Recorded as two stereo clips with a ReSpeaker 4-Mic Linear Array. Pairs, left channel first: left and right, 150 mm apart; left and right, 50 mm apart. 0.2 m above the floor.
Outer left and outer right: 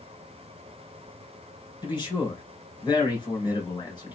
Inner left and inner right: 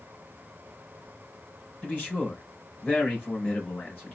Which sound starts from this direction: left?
A man speaking, at 1.8 s.